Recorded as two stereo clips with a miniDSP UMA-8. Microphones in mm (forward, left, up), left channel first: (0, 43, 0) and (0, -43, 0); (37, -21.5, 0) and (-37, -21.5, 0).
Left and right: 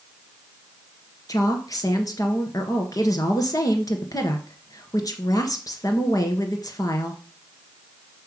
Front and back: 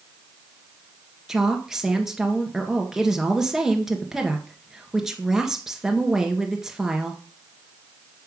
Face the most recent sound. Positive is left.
turn(degrees=100)